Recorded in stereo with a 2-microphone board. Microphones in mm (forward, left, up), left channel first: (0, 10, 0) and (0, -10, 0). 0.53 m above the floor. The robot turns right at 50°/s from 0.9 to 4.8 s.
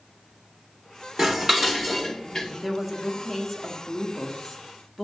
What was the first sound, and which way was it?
Dishes clattering, 35° right.